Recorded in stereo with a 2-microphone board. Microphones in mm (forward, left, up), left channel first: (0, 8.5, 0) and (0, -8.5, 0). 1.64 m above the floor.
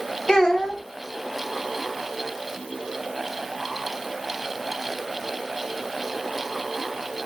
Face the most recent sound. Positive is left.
turn(degrees=40)  # may be behind; listen again after turning